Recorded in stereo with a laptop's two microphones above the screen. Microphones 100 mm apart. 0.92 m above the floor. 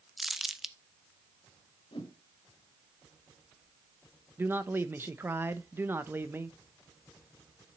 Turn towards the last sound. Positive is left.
turn(degrees=-25)  # may be behind; listen again after turning